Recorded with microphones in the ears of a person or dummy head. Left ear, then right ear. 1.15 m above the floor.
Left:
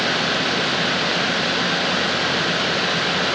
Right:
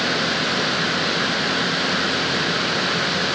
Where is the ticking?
I don't hear ticking.